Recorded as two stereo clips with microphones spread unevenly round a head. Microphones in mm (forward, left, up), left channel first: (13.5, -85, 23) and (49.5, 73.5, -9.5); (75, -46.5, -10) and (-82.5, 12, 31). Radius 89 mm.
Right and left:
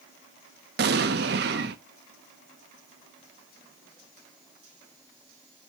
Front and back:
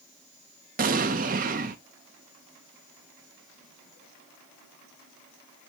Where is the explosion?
115° left, 0.6 m.